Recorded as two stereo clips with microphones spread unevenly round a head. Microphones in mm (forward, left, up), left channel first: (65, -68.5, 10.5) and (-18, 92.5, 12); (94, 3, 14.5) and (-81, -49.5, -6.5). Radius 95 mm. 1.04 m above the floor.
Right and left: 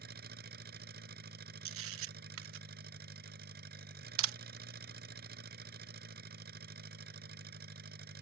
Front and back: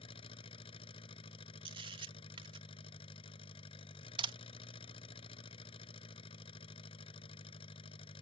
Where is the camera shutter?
135° left.